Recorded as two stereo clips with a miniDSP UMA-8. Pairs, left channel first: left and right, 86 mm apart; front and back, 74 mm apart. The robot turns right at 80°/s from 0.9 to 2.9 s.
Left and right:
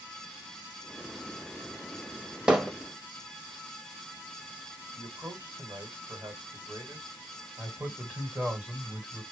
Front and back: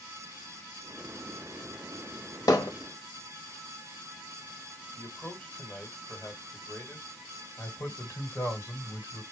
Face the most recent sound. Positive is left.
turn(degrees=-30)